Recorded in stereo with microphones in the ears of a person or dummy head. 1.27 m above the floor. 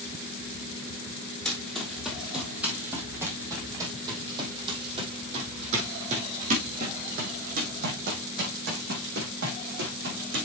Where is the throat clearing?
I don't hear throat clearing.